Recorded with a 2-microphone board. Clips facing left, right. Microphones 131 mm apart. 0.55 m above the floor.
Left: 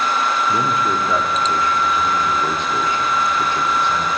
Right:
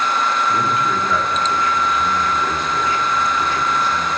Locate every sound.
0.5 s a man speaking: 25° left (ahead or behind), 1.0 m